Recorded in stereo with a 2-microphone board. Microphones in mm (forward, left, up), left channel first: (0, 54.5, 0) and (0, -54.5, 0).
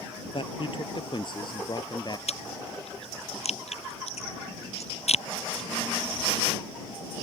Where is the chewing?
75° left (ahead or behind).